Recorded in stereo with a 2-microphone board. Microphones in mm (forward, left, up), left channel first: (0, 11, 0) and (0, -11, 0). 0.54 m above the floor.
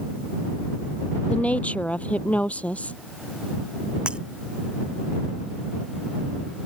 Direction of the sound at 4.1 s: 40° right (ahead or behind).